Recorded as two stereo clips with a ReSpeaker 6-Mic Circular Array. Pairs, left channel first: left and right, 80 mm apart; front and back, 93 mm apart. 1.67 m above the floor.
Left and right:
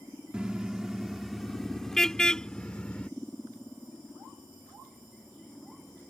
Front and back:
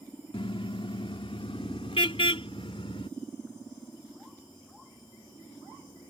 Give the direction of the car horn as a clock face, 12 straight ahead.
12 o'clock.